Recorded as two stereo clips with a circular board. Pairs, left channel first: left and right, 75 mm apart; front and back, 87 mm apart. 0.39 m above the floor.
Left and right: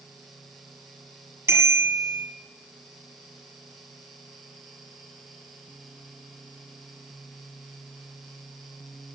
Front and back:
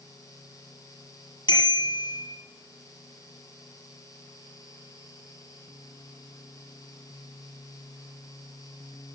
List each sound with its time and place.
1.5 s a bicycle bell: 35° right, 7 m